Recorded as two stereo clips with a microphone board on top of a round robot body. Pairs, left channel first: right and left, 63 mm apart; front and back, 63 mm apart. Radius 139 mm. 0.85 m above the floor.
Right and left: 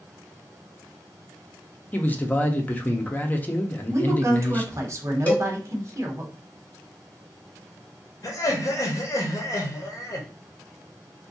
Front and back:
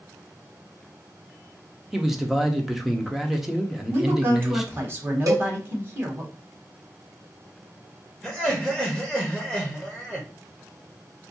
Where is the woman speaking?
130° left, 1.3 m.